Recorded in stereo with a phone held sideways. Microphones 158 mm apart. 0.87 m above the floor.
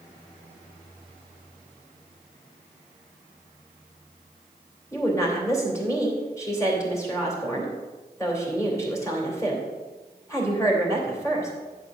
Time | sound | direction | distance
4.9 | a woman speaking | 20° left (ahead or behind) | 3 m